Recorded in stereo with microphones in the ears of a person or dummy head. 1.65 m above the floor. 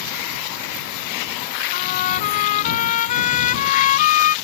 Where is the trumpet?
45° left (ahead or behind).